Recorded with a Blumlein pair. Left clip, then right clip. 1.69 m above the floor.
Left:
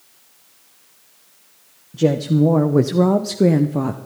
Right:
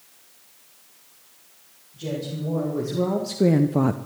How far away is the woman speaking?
About 1.6 m.